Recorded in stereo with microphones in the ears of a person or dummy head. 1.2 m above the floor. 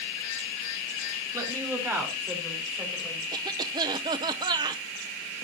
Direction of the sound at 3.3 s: 25° right (ahead or behind).